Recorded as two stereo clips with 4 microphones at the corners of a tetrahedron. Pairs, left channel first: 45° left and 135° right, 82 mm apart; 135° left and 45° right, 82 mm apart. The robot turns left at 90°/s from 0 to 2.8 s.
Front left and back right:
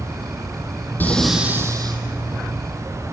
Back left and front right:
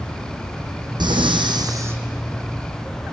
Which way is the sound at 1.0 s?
20° right.